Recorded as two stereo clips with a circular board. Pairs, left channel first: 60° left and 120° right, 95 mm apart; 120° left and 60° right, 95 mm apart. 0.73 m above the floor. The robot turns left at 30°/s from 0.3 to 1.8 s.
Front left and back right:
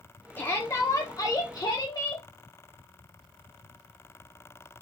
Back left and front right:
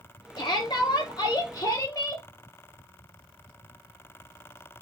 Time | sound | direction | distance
0.4 | a shout | 125° left | 1.6 m